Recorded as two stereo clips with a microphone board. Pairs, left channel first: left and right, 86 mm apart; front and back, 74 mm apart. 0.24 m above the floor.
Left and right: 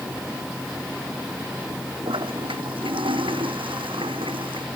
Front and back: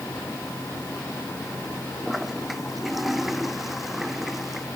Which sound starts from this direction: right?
A toilet flushing, at 2.0 s.